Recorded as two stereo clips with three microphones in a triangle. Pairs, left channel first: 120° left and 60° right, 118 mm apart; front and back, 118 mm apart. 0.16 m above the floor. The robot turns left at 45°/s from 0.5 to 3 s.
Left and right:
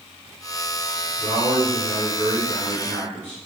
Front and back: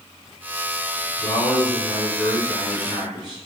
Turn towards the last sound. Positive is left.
turn(degrees=-15)